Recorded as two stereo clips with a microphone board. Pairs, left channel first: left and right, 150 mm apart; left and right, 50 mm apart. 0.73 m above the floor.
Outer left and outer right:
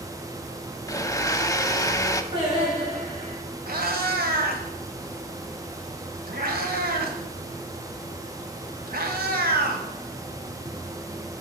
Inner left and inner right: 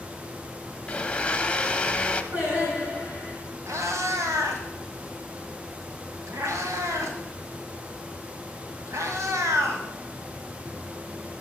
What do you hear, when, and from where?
0.9 s a blender: 20° left (ahead or behind), 0.6 m
2.3 s singing: 30° right (ahead or behind), 4.5 m
3.7 s a cat meowing: 75° right (ahead or behind), 1.4 m